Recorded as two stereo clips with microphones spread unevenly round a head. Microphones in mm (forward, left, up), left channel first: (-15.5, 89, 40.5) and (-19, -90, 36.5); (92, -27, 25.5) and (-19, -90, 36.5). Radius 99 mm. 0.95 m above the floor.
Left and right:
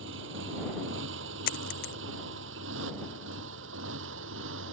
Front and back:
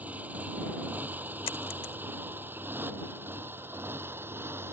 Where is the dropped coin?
80° left.